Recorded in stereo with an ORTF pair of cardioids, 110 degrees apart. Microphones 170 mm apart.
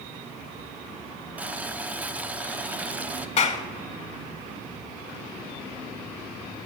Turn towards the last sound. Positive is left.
turn(degrees=45)